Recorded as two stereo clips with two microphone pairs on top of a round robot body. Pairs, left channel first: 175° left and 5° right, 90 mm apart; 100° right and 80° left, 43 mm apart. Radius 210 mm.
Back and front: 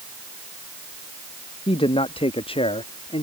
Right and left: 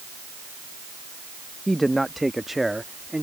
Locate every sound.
1.7 s a man speaking: straight behind; by 3.2 s 165° left